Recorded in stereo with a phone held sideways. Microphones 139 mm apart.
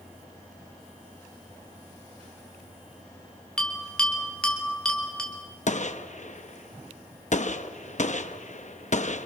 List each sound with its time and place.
3.6 s a bell: 5° left (ahead or behind), 3 m
5.7 s a gunshot: 60° left (ahead or behind), 0.8 m